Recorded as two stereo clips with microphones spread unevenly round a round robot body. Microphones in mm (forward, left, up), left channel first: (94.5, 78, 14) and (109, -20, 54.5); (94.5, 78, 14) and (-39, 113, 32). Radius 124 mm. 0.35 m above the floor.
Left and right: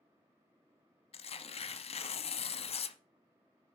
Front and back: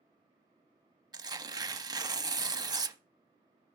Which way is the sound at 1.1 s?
100° left.